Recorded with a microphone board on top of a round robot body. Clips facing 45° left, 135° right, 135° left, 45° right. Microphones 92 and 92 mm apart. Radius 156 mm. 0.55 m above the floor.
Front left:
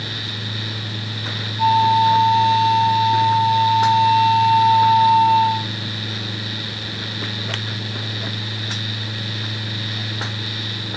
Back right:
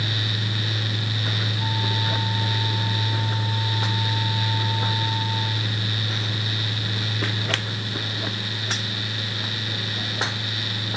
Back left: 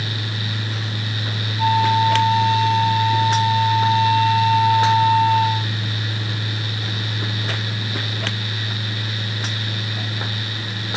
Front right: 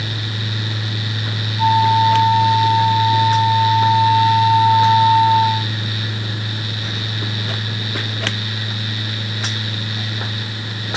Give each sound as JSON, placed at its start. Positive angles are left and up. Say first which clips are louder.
{"t": 1.6, "sound": "a flute", "louder": "front left 18 dB, front right 3 dB", "azimuth_deg": 35}